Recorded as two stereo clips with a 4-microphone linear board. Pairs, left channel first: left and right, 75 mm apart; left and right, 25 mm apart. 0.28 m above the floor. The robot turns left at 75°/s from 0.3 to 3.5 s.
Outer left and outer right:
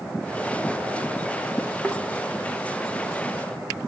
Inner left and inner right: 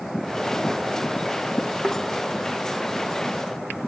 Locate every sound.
1.8 s a thud: 10° left (ahead or behind), 4 m; by 2.0 s 20° left (ahead or behind), 4 m